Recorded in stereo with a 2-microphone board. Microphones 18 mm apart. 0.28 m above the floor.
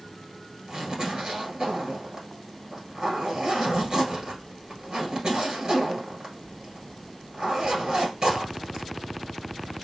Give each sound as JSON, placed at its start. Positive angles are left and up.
{"t": 0.7, "sound": "a zipper", "side_deg": -40, "distance_m": 1.6}